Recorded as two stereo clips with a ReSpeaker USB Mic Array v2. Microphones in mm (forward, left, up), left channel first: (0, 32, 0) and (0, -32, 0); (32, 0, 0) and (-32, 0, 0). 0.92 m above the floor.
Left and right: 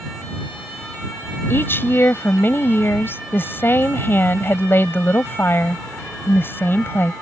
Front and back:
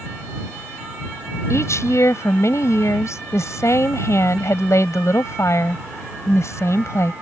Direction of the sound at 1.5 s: 40° left.